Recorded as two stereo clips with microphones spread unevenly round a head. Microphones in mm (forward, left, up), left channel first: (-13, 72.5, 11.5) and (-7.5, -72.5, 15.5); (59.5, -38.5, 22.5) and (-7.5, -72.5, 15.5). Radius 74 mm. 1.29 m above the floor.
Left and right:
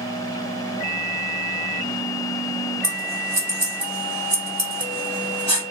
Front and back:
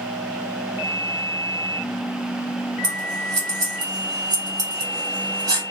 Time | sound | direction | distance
2.8 | scissors | 145° right | 1.5 m